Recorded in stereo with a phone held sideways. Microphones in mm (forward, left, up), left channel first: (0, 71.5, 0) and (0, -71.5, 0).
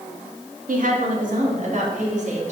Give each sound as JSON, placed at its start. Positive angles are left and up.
{"t": 0.7, "sound": "a woman speaking", "side_deg": -70, "distance_m": 2.0}